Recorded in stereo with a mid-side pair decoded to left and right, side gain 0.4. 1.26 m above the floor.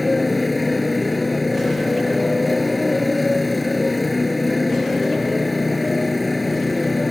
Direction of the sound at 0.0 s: 15° left.